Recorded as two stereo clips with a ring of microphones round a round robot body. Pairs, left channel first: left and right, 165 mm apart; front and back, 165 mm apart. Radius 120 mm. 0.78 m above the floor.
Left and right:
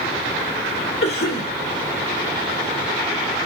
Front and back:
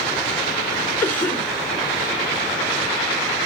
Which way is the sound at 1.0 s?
80° left.